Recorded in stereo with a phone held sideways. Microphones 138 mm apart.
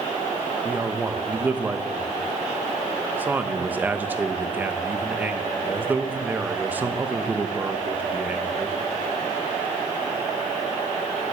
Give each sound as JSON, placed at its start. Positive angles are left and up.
{"t": 0.7, "sound": "a man speaking", "side_deg": -15, "distance_m": 0.9}